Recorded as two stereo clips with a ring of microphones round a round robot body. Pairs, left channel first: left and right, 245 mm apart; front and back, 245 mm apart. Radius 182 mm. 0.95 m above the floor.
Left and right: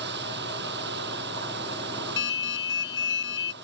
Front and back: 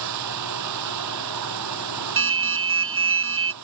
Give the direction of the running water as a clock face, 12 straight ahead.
5 o'clock.